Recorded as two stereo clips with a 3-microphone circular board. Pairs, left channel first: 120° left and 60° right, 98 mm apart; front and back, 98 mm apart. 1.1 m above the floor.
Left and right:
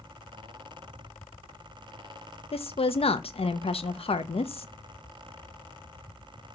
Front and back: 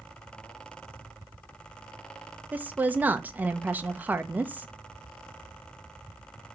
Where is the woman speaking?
110° left, 0.5 m.